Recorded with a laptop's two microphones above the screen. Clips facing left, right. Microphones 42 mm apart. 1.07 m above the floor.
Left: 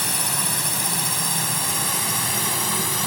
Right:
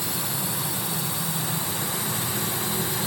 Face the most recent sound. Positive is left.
turn(degrees=80)